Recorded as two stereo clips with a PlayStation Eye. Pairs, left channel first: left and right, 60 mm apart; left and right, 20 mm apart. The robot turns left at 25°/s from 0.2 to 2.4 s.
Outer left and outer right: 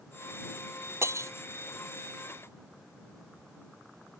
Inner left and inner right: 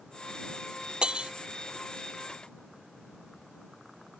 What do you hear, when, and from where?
1.0 s breaking glass: 50° right (ahead or behind); by 1.3 s 60° right (ahead or behind)